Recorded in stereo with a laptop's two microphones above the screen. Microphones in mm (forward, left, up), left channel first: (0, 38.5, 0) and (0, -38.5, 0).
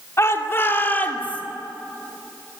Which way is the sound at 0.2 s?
35° left (ahead or behind).